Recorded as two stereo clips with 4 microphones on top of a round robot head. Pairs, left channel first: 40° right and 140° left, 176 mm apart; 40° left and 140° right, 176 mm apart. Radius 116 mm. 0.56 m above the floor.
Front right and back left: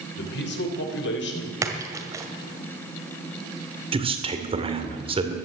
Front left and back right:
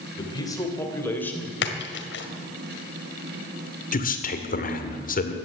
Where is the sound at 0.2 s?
25° right, 2.5 m; by 1.5 s 40° right, 3 m.